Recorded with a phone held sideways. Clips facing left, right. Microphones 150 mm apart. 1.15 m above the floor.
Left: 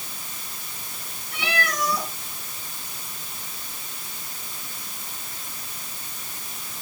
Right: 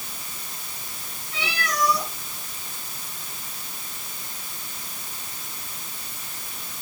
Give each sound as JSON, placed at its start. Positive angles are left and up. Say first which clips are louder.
{"t": 1.3, "sound": "a cat meowing", "louder": "left 1 dB", "side_deg": 55, "distance_m": 6.0}